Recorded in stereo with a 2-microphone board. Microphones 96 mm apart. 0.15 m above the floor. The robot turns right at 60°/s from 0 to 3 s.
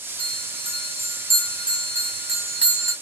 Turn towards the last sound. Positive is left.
turn(degrees=35)